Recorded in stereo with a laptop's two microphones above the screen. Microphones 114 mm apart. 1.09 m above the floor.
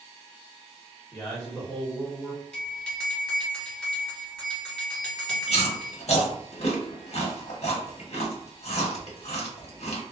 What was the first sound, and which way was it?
A man speaking, 20° left (ahead or behind).